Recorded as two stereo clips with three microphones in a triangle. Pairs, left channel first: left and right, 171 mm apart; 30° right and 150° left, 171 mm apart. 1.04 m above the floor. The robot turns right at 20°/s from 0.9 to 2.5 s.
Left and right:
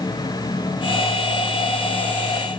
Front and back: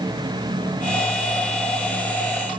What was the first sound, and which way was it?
Only background noise.